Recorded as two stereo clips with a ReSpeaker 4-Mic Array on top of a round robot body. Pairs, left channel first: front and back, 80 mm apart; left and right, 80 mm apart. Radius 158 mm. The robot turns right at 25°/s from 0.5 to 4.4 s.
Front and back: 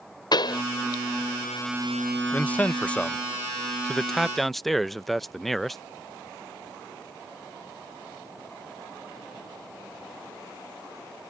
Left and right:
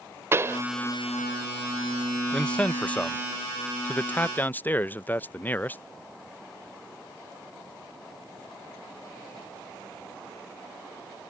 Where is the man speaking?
35° left; by 5.8 s 85° left.